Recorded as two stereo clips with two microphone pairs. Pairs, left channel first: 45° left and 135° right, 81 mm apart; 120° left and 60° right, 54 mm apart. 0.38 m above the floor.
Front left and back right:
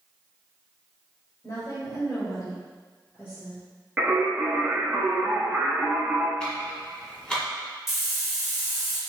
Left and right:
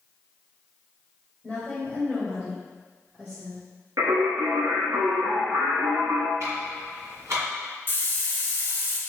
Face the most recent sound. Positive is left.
turn(degrees=140)